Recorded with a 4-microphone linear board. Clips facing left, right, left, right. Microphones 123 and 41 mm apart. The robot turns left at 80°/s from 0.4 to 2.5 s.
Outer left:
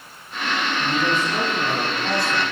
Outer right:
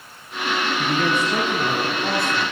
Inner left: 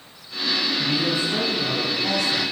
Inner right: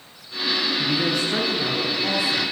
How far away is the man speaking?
About 9.5 m.